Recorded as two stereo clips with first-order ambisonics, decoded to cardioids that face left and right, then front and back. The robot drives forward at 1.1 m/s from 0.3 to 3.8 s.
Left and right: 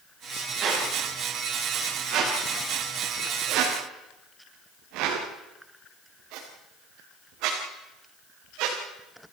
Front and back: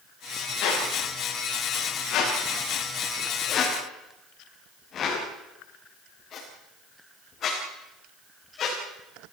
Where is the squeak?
35° right, 7.5 m; by 8.8 s 60° right, 5 m.